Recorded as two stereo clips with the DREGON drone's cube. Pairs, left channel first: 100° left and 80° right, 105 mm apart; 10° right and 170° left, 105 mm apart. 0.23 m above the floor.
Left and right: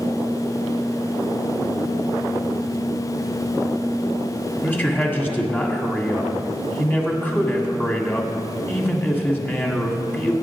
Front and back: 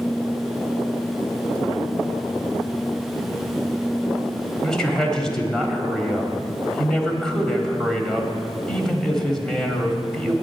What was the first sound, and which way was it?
A man speaking, 65° left.